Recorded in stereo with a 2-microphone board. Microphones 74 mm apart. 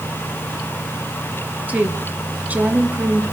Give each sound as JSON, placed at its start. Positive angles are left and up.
{"t": 1.7, "sound": "a woman speaking", "side_deg": -20, "distance_m": 2.0}